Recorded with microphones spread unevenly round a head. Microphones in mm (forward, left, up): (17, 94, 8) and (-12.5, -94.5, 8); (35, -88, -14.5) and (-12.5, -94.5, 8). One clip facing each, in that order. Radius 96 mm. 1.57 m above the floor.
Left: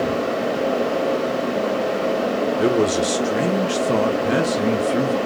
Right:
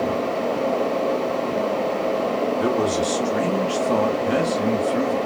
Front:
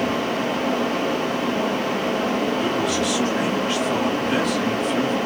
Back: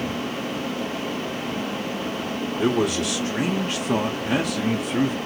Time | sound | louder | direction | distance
2.6 | a man speaking | left 5 dB, even | 145° left | 1.4 m